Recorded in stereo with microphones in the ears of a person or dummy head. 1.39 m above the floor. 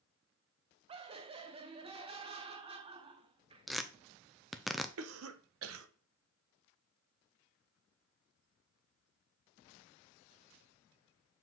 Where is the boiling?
I don't hear boiling.